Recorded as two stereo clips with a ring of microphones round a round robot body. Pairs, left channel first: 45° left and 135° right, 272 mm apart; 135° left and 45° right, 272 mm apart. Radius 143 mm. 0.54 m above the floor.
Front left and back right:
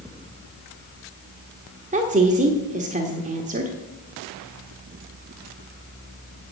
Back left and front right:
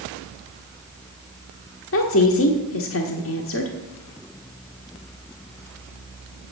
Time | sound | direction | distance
1.9 | a woman speaking | 165° left | 1.3 m